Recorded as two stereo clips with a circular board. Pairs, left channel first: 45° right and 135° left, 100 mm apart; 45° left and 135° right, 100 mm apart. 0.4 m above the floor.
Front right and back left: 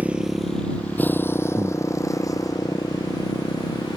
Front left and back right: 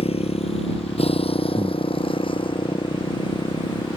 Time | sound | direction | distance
0.0 | a motorcycle | 60° left | ?
1.6 | breathing | straight behind | ?